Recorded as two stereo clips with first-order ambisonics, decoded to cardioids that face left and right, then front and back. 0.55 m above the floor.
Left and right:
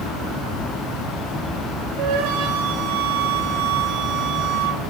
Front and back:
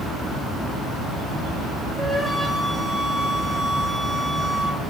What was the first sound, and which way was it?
A flute, 100° right.